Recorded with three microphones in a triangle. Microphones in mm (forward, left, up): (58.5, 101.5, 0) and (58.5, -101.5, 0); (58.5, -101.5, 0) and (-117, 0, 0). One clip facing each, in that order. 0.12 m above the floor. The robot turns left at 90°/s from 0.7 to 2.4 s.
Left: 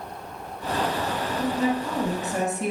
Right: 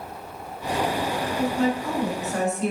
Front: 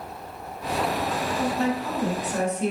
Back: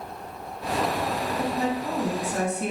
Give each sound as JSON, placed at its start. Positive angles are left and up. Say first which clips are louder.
{"t": 1.4, "sound": "a woman speaking", "louder": "right 1 dB, front 2 dB", "azimuth_deg": 180, "distance_m": 1.1}